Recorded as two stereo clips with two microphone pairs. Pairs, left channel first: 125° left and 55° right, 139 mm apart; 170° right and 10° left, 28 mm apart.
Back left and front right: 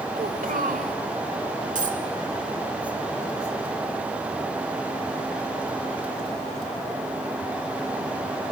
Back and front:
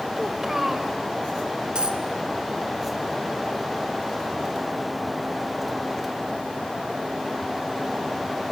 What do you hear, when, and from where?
0.2 s a child speaking: 60° right, 1.5 m
1.8 s a dropped coin: 35° right, 1.6 m